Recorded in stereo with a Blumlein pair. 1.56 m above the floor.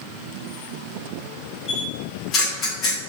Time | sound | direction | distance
1.7 | a camera shutter | 30° left | 3 m